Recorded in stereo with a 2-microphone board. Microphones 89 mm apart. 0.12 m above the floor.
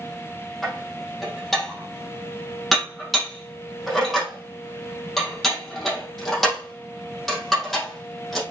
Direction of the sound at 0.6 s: Centre (ahead or behind).